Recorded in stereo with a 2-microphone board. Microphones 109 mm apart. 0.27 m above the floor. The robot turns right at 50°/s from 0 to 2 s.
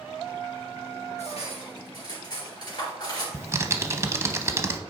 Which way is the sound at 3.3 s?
25° right (ahead or behind).